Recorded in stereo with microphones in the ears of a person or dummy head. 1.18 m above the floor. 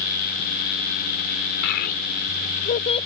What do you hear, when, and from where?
1.6 s a child speaking: 60° left (ahead or behind); by 3.1 s 30° left (ahead or behind)